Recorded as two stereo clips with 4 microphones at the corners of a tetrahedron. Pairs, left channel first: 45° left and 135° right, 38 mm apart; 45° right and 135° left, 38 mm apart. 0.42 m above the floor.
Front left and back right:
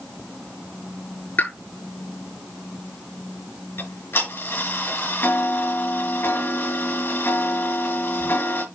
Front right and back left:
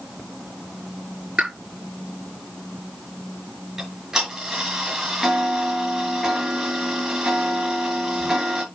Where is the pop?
85° left, 7.5 m.